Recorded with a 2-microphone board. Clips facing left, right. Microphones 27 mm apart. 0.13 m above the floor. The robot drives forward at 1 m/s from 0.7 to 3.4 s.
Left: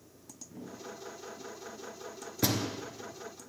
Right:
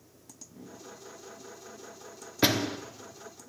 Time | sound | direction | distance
0.5 | a whoosh | 75° left (ahead or behind) | 8.5 m
2.4 | a door slam | 35° right (ahead or behind) | 1.2 m